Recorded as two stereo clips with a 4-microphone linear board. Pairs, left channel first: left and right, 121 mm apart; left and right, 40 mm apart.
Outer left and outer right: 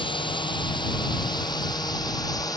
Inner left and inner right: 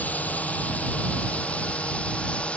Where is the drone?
45° left (ahead or behind); by 2.6 s 30° left (ahead or behind).